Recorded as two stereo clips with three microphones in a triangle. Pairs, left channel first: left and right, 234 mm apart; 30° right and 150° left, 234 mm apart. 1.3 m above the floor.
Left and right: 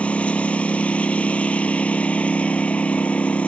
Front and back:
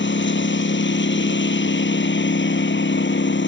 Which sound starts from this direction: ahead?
A lawn mower, at 0.0 s.